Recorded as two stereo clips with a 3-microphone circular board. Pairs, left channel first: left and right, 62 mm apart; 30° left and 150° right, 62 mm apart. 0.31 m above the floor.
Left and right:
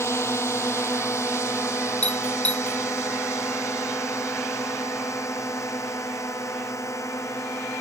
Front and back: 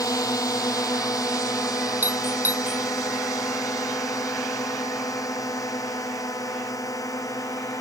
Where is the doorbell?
155° left.